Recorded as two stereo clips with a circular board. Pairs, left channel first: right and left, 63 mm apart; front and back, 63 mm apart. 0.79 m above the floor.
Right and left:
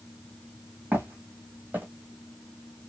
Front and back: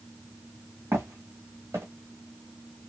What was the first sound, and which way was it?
Footsteps, 150° left.